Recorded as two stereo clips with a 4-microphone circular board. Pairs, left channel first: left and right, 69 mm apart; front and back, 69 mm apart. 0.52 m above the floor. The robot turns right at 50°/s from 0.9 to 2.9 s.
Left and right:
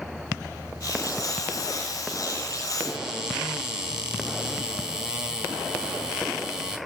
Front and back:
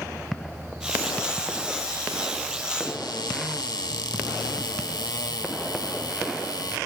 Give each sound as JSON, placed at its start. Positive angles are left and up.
{"t": 2.8, "sound": "a cupboard door", "azimuth_deg": -15, "distance_m": 3.0}